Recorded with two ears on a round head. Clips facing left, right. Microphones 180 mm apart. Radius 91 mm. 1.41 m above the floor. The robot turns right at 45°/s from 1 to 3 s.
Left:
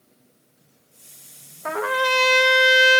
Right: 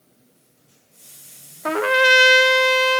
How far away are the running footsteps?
I don't hear running footsteps.